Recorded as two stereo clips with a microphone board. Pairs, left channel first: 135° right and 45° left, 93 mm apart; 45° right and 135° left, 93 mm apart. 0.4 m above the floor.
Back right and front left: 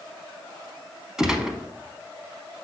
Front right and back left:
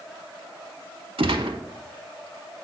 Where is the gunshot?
130° left, 0.7 m.